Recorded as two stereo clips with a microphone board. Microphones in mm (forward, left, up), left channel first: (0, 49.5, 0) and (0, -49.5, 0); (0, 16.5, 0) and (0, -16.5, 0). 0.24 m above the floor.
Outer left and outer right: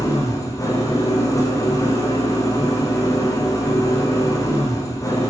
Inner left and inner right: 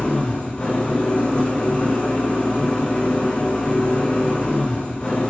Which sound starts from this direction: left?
An engine running, at 0.0 s.